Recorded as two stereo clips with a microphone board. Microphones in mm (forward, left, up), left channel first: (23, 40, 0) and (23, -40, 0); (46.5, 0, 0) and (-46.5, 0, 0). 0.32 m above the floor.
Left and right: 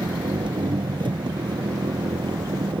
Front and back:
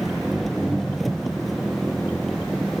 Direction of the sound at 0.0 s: 90° right.